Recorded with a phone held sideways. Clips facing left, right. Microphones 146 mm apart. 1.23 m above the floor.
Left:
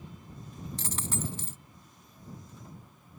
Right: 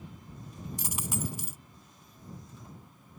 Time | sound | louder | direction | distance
0.8 | a dropped coin | even | 10° right (ahead or behind) | ?